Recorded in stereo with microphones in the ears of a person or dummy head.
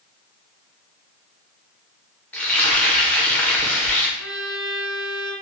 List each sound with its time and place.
2.3 s frying: 5° left (ahead or behind), 0.5 m
4.2 s a violin: centre (ahead or behind), 2.0 m